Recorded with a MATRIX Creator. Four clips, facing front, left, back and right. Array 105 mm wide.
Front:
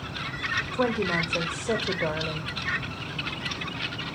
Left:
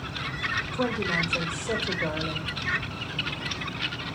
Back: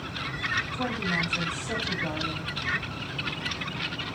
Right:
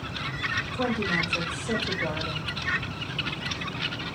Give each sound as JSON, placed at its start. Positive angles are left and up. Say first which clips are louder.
{"t": 0.7, "sound": "a woman speaking", "louder": "even, front 8 dB", "azimuth_deg": 15, "distance_m": 3.0}